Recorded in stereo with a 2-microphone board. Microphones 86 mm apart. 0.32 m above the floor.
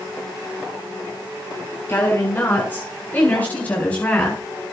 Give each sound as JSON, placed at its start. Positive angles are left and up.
{"t": 1.9, "sound": "a woman speaking", "side_deg": 25, "distance_m": 7.0}